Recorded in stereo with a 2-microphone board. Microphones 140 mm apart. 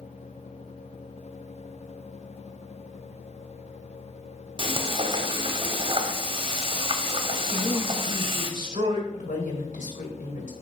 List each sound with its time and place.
4.6 s frying: 35° right (ahead or behind), 0.9 m
7.5 s a man speaking: 40° right (ahead or behind), 1.7 m
9.1 s a woman speaking: 65° left (ahead or behind), 2 m